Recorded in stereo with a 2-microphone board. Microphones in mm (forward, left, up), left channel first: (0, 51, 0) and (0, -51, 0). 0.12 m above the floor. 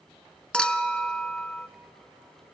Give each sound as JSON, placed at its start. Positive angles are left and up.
{"t": 0.5, "sound": "a clink", "side_deg": 10, "distance_m": 0.7}